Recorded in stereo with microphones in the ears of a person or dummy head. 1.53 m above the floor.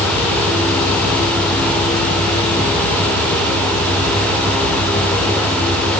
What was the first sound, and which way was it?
Only background noise.